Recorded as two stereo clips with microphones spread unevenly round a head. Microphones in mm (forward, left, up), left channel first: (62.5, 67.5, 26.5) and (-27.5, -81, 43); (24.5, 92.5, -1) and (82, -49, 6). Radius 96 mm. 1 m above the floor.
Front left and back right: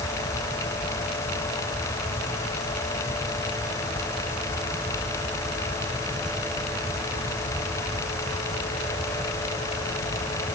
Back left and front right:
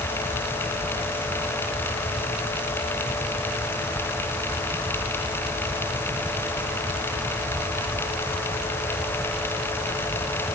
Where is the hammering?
No hammering in this recording.